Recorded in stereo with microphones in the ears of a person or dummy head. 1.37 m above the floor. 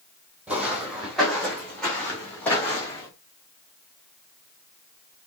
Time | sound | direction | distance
0.5 | footsteps | 5° right (ahead or behind) | 3.5 m